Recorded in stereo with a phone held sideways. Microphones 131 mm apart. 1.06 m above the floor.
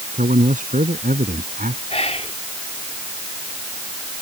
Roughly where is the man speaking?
Right.